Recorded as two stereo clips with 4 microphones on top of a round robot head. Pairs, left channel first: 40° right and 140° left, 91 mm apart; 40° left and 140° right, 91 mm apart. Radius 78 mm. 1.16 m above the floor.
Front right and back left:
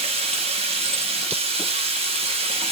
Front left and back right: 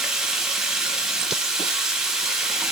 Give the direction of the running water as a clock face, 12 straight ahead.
8 o'clock.